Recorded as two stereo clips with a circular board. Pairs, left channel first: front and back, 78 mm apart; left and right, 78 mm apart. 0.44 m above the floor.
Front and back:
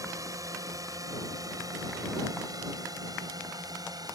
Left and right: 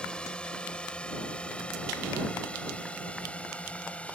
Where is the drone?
165° left; by 4.2 s 160° left.